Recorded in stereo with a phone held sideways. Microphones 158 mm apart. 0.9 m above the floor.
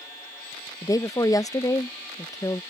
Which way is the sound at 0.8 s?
20° left (ahead or behind).